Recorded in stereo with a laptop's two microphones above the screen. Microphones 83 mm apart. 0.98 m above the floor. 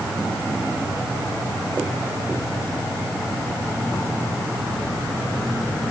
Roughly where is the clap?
No clap in this recording.